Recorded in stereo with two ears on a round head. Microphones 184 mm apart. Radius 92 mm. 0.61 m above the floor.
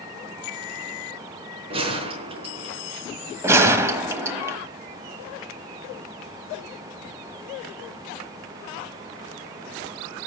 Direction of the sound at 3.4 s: 15° right (ahead or behind).